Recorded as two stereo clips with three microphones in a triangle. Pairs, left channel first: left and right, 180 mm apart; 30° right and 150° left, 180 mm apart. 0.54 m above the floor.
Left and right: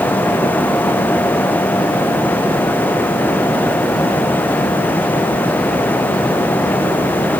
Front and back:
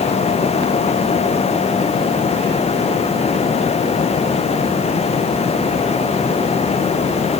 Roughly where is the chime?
No chime in this recording.